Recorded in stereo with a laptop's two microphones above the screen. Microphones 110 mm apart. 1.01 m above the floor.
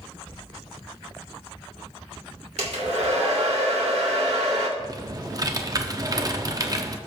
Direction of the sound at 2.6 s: 80° right.